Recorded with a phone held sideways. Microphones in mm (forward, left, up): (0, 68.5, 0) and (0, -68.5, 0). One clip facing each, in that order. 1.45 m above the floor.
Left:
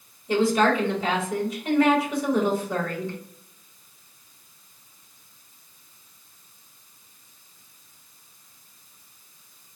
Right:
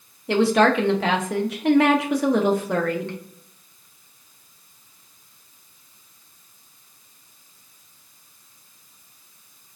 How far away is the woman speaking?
About 0.8 m.